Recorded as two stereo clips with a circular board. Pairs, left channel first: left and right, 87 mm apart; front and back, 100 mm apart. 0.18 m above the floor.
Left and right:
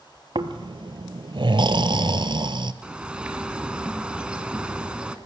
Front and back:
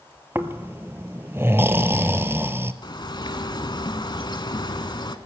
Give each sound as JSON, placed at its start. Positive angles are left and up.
{"t": 0.3, "sound": "snoring", "azimuth_deg": -115, "distance_m": 0.7}
{"t": 2.8, "sound": "a bird", "azimuth_deg": -15, "distance_m": 0.9}